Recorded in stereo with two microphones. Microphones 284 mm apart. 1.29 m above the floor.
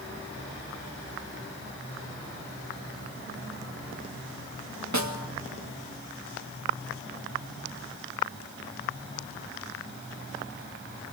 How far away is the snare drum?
About 1.8 m.